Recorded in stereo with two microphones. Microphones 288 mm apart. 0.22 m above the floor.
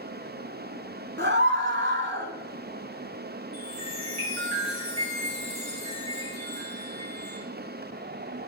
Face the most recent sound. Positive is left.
turn(degrees=-50)  # may be behind; listen again after turning